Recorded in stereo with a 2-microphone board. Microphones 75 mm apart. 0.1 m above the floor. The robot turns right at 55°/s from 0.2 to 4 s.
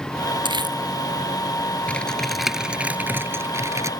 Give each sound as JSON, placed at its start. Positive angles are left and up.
{"t": 0.5, "sound": "crumpling", "side_deg": -75}
{"t": 1.9, "sound": "typing on a keyboard", "azimuth_deg": 155}